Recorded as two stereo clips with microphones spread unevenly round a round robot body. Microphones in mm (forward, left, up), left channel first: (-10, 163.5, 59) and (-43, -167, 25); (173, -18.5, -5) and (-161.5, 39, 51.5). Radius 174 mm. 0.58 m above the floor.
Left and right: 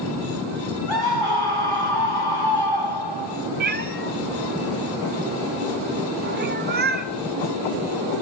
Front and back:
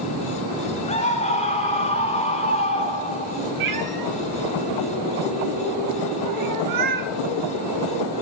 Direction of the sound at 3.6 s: 160° right.